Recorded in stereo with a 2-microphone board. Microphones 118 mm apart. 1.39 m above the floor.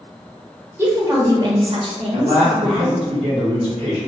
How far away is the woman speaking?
About 0.8 m.